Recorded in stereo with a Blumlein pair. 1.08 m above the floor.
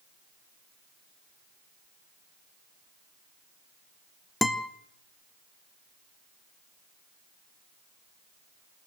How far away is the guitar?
About 1.4 m.